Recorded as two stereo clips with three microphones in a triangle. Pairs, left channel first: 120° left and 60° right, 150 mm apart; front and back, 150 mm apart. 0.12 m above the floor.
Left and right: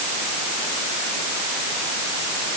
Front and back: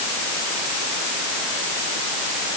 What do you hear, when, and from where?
Only background noise.